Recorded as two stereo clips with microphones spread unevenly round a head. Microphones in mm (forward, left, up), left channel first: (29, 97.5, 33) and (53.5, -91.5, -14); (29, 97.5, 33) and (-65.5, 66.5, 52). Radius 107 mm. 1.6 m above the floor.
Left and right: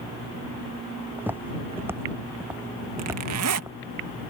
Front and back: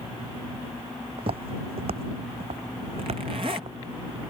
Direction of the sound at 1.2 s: 170° right.